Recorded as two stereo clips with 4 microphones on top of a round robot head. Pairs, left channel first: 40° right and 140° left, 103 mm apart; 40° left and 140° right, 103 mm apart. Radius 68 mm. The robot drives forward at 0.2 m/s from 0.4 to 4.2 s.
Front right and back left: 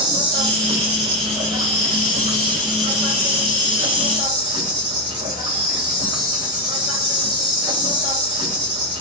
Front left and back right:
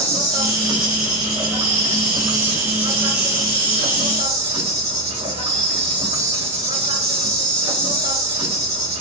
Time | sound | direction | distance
0.0 | an insect | 175° left | 2.5 m